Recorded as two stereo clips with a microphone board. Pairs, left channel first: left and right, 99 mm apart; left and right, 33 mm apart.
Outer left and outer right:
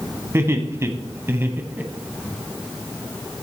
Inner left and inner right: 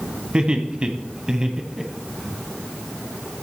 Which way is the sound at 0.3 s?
25° right (ahead or behind).